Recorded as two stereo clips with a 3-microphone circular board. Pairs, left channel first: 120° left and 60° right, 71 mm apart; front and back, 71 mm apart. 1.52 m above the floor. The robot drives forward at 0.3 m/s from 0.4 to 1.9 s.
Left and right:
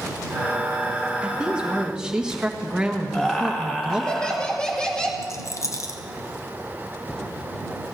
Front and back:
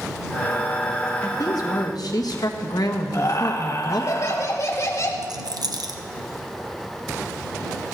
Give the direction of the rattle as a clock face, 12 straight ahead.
7 o'clock.